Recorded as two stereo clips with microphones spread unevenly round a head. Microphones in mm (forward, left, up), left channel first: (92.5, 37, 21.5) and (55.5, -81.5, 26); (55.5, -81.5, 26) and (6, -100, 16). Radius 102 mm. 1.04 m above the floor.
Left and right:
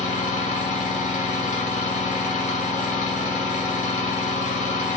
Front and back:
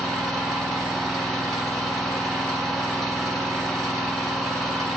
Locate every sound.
0.0 s an engine running: 60° left, 2.5 m